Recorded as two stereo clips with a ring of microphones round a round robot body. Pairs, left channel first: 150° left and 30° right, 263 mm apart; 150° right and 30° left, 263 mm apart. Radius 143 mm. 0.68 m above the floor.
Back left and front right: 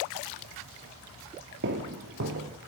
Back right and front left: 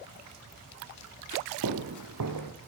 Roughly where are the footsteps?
Ahead.